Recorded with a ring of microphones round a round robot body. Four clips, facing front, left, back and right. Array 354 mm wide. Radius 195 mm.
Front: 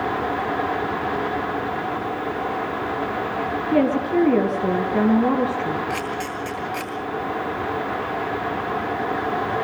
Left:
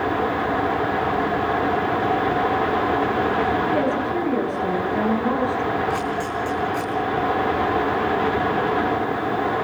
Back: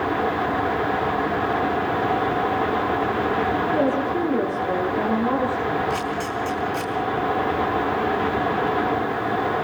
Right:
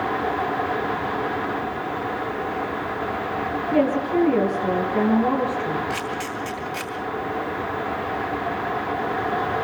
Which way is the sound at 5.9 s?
55° right.